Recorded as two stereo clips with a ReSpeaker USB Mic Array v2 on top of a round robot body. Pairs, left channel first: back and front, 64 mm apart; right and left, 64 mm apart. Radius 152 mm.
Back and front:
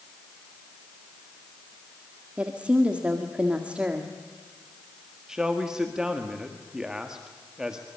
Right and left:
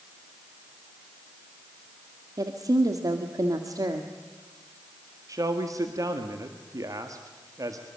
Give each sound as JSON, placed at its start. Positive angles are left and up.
{"t": 2.4, "sound": "a woman speaking", "azimuth_deg": 70, "distance_m": 1.8}
{"t": 5.3, "sound": "a man speaking", "azimuth_deg": 80, "distance_m": 1.8}